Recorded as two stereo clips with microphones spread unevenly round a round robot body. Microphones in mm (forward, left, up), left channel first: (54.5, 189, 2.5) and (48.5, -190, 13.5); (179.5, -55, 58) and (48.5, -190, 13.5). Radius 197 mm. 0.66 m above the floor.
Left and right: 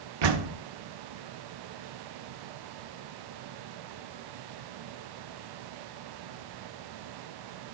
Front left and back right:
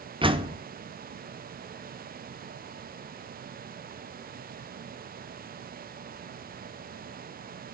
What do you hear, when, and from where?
0.2 s a door slam: 75° right, 1.5 m